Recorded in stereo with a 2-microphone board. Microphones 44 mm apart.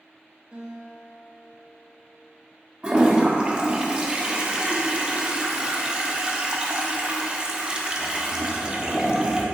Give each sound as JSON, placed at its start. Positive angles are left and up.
{"t": 0.5, "sound": "a guitar", "side_deg": -20, "distance_m": 2.5}
{"t": 2.8, "sound": "a toilet flushing", "side_deg": -20, "distance_m": 0.9}